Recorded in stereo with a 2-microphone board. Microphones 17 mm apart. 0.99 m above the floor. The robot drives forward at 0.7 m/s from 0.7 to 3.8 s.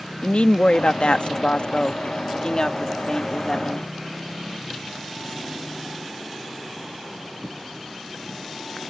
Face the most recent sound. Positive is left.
turn(degrees=30)  # may be behind; listen again after turning